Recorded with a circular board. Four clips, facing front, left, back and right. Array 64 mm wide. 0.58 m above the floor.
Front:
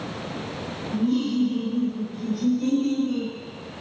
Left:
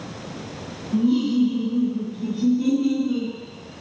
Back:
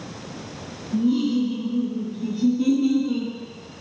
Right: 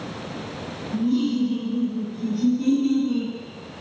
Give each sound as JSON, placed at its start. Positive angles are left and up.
{"t": 0.9, "sound": "laughter", "azimuth_deg": 110, "distance_m": 1.3}